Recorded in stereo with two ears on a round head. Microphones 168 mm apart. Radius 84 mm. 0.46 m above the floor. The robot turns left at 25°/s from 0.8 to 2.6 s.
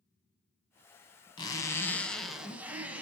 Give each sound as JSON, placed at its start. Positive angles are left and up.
{"t": 1.4, "sound": "a zipper", "azimuth_deg": 25, "distance_m": 0.9}